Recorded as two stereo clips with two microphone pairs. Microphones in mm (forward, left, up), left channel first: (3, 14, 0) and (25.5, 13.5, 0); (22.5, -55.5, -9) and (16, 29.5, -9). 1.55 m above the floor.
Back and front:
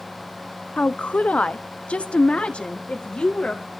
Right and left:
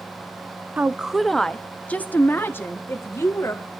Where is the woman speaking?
165° left, 0.6 m; by 3.6 s 145° right, 2 m.